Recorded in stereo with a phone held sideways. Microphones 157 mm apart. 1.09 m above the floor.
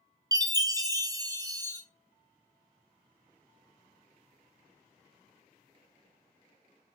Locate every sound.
0.3 s a chime: 25° right (ahead or behind), 0.5 m